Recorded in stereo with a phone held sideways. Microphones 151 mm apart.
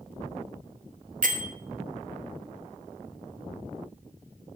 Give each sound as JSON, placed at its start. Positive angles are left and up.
{"t": 1.2, "sound": "a bell", "side_deg": -60, "distance_m": 1.3}